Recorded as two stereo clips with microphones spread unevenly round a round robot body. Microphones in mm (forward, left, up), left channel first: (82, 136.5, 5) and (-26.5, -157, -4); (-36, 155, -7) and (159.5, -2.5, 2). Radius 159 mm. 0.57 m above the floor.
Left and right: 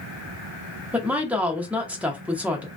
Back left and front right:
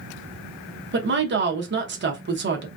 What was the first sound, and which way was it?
A woman speaking, 30° right.